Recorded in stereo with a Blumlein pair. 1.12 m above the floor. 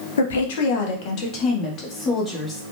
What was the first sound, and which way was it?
A woman speaking, 65° left.